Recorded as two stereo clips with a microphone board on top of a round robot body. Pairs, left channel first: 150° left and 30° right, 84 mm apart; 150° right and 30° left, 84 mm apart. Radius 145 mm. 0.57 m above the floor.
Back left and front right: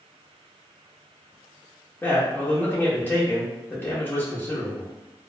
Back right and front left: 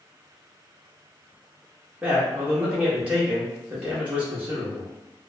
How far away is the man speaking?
About 1.0 m.